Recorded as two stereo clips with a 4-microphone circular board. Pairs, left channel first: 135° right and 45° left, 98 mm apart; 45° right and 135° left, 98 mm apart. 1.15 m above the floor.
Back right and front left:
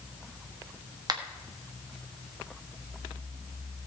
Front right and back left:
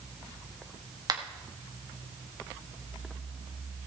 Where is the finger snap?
90° left, 1.3 m.